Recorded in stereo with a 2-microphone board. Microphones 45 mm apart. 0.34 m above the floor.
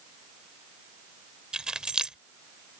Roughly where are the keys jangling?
Centre.